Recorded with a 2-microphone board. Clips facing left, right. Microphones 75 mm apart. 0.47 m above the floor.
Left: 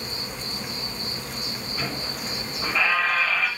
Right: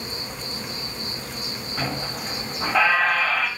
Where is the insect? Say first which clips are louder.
Right 1 dB; 25° right (ahead or behind), 1.3 m.